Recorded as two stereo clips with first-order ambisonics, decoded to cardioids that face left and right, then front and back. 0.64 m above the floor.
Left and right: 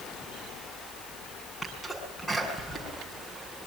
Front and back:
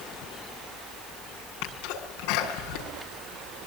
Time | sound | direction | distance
1.6 | a sneeze | straight ahead | 6.5 m